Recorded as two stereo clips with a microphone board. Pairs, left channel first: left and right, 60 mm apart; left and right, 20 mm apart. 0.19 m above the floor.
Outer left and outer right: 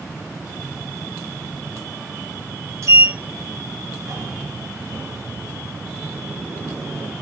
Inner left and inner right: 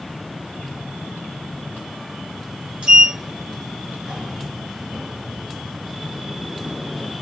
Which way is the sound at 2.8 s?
60° right (ahead or behind).